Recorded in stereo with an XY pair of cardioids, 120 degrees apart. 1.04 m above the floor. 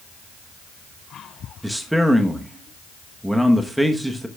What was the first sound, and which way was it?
A man speaking, 5° right.